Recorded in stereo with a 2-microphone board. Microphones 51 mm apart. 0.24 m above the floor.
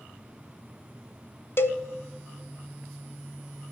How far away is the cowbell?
About 0.5 m.